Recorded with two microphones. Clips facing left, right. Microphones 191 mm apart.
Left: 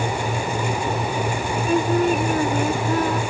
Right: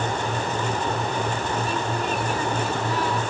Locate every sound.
1.7 s singing: 55° left (ahead or behind)